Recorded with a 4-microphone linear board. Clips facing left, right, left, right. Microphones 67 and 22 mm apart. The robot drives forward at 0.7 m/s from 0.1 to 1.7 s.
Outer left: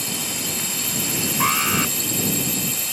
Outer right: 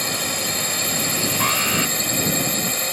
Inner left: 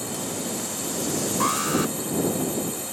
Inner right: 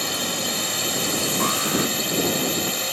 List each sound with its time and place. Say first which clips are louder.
0.0 s a drone: outer right 4 dB, inner right 6 dB; 55° right (ahead or behind)
1.4 s an alarm: outer left 2 dB, inner left 1 dB; 10° left (ahead or behind)